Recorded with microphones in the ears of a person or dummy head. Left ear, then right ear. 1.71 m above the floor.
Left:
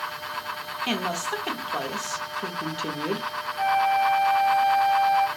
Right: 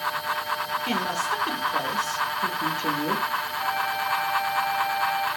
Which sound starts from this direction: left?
A flute, at 3.6 s.